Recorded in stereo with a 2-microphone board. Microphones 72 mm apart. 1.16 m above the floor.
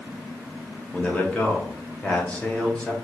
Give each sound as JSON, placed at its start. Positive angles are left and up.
{"t": 0.9, "sound": "a man speaking", "side_deg": 15, "distance_m": 0.8}